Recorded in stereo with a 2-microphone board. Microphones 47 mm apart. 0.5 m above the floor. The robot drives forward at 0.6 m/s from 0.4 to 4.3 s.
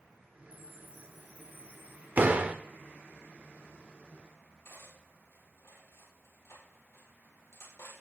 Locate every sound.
0.5 s a chime: 45° left (ahead or behind), 4.5 m; by 2.1 s 55° left (ahead or behind), 3.5 m
2.2 s a door slam: 40° right (ahead or behind), 1.2 m; by 2.6 s 35° right (ahead or behind), 1.3 m
4.7 s cutlery clinking: 85° left, 8 m